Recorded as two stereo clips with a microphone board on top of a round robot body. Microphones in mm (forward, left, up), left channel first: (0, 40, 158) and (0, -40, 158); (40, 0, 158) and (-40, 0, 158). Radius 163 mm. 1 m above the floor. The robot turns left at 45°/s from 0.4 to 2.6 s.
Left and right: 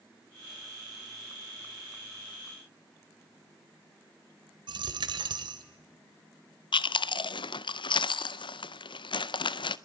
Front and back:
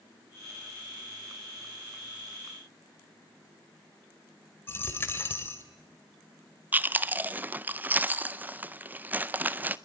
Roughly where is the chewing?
Left.